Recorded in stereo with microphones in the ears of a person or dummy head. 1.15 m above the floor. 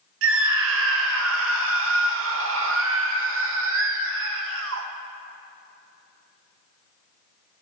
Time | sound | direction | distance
0.2 | a scream | 60° right (ahead or behind) | 1.5 m